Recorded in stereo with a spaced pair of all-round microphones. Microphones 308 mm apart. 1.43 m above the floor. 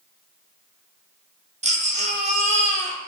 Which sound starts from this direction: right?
A baby crying, at 1.6 s.